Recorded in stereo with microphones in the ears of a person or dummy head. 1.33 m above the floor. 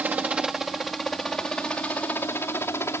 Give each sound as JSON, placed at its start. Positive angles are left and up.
{"t": 0.0, "sound": "a helicopter", "side_deg": -10}